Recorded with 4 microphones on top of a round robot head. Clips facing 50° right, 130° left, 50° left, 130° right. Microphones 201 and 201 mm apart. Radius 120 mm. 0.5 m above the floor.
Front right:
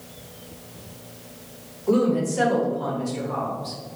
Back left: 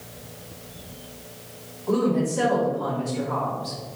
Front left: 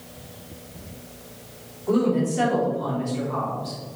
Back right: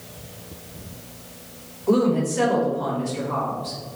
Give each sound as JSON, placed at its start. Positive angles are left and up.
{"t": 1.9, "sound": "a woman speaking", "azimuth_deg": -100, "distance_m": 1.9}